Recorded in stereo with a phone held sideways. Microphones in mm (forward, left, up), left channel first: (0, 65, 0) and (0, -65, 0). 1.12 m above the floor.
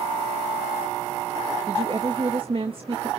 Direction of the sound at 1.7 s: 45° right (ahead or behind).